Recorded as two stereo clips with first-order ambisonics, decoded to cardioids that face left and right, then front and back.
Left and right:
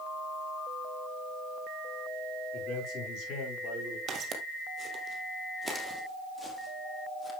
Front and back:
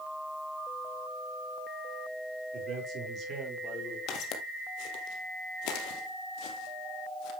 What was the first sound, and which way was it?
A man speaking, 135° left.